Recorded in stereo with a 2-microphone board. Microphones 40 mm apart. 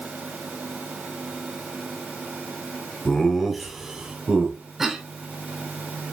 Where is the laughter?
20° left (ahead or behind), 1.1 m; by 4.6 s 40° right (ahead or behind), 1.4 m.